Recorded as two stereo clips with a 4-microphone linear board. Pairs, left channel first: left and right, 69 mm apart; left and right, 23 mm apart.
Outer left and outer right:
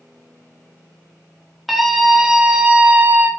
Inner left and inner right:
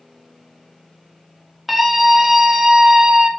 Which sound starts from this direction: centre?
A scream, at 1.7 s.